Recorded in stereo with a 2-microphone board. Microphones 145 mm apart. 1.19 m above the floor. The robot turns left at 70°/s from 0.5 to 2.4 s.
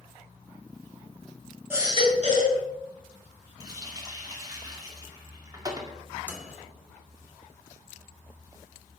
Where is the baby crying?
15° right, 3.5 m; by 2.6 s 65° right, 3.5 m.